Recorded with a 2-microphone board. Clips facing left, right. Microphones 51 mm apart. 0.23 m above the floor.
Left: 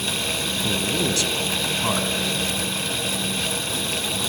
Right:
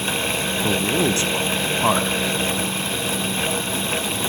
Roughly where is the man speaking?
Right.